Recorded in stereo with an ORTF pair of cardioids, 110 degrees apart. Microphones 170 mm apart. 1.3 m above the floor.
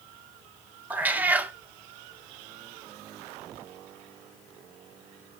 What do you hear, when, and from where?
0.9 s a cat meowing: 10° right, 1.5 m